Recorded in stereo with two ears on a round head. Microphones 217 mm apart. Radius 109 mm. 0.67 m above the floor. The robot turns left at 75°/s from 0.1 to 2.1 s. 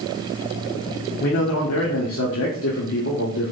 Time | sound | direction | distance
1.2 | a man speaking | 130° left | 1.4 m